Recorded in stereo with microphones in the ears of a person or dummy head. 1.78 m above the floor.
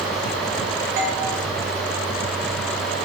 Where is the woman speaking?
No woman speaking in this recording.